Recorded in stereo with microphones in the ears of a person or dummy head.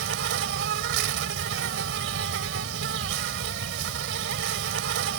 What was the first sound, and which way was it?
An insect, 65° right (ahead or behind).